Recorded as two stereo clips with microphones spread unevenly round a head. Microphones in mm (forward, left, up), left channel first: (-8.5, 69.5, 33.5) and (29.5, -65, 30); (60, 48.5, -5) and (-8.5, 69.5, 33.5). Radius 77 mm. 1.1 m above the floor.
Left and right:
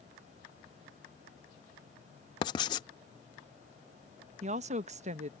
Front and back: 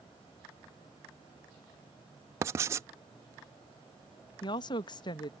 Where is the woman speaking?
35° right.